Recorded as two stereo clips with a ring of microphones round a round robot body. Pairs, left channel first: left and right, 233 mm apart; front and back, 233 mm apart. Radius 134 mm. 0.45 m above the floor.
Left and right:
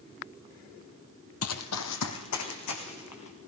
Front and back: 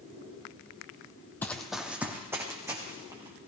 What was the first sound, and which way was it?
Running footsteps, 80° left.